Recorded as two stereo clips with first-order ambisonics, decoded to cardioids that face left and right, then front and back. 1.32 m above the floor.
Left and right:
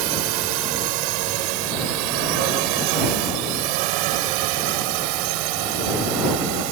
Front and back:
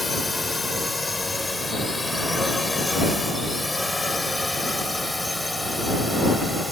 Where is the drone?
80° right; by 6.7 s 85° right.